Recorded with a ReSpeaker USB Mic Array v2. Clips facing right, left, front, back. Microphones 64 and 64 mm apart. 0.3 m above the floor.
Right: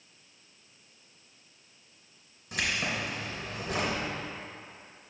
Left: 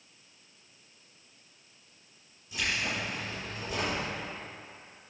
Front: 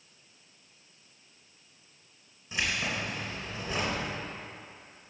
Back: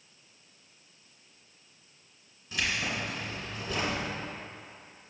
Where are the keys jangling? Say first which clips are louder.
Right 1 dB, even; 75° right, 2.5 m.